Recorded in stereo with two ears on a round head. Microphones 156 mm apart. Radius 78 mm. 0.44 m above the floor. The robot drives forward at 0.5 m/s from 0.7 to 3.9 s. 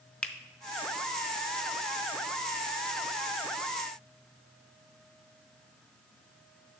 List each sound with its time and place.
0.2 s a finger snap: 5° left (ahead or behind), 0.6 m